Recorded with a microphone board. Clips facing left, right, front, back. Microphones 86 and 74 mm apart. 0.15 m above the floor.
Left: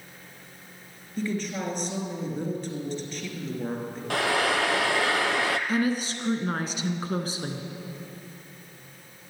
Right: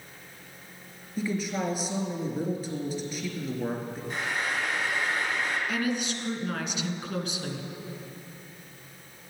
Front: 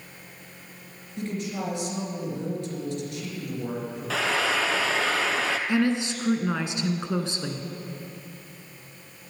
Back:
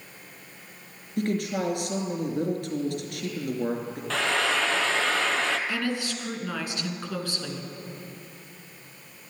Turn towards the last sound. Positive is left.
turn(degrees=55)